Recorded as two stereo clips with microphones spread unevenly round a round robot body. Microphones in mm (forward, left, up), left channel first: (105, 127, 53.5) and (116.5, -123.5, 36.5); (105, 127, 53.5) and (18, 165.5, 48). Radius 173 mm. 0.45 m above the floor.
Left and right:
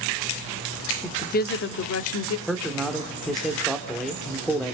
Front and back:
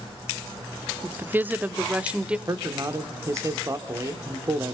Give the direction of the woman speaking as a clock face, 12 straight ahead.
7 o'clock.